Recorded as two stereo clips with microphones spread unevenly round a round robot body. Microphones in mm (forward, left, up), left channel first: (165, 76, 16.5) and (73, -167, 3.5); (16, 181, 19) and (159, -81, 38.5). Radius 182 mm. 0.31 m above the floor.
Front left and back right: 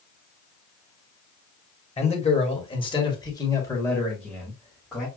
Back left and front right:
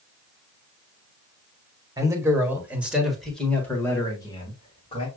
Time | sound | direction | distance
2.0 | a man speaking | 15° left | 1.8 m